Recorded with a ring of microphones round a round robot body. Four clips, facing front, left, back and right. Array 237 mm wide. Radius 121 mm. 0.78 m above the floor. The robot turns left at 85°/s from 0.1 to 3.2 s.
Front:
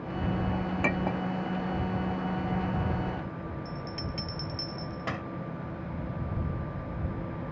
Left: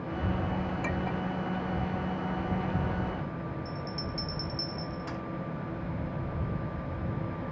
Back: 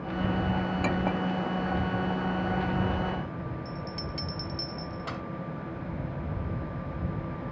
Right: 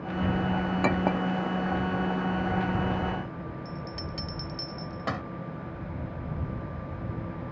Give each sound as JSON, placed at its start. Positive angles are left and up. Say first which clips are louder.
{"t": 0.8, "sound": "a clink", "louder": "right 7 dB, back 1 dB", "azimuth_deg": -70}
{"t": 3.6, "sound": "a bell", "louder": "left 1 dB, even", "azimuth_deg": -75}